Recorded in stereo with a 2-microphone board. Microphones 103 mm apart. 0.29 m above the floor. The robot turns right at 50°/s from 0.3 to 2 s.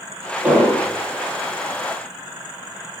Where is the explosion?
15° right (ahead or behind), 2.5 m; by 0.9 s 10° left (ahead or behind), 2.5 m.